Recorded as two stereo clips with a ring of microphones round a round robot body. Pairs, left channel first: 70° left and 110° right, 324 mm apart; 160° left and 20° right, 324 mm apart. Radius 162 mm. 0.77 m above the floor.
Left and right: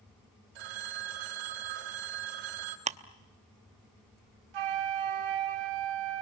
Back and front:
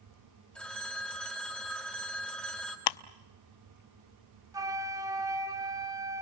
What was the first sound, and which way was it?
A phone ringing, 115° right.